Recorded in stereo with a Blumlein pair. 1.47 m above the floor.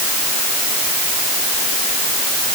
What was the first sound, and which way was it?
Only background noise.